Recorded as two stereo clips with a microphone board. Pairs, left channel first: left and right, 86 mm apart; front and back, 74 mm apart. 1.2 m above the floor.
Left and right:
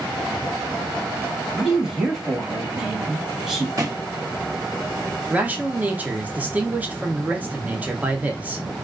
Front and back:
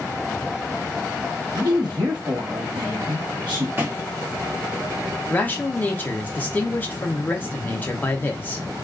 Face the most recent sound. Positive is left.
turn(degrees=-40)